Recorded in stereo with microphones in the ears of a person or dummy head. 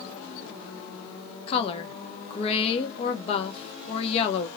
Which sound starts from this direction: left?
A woman speaking, at 1.5 s.